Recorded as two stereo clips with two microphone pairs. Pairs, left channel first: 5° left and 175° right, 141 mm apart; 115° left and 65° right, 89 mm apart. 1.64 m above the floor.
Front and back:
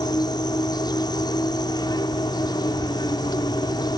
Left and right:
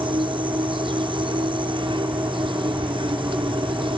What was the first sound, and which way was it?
An insect, 55° right.